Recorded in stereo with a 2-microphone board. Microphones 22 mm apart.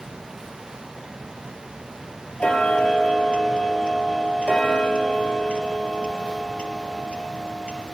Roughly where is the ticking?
Left.